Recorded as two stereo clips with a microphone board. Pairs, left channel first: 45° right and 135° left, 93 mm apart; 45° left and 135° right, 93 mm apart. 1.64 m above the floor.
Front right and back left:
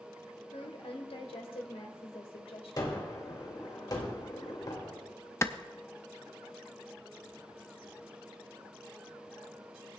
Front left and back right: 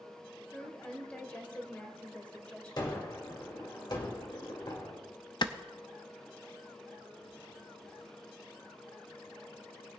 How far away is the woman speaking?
About 1.5 m.